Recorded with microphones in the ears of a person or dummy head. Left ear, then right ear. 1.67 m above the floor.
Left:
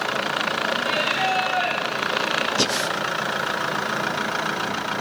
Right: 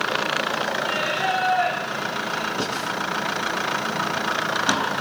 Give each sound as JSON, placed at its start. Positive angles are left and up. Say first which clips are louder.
{"t": 0.8, "sound": "singing", "louder": "left 2 dB", "side_deg": 75, "distance_m": 10.0}
{"t": 2.6, "sound": "breathing", "louder": "left 4 dB", "side_deg": 50, "distance_m": 1.1}